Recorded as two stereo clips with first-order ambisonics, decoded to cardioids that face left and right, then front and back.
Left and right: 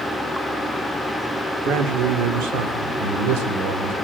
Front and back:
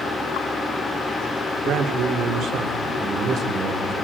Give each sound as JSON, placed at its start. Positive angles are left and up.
{"t": 1.6, "sound": "a man speaking", "azimuth_deg": -130, "distance_m": 2.5}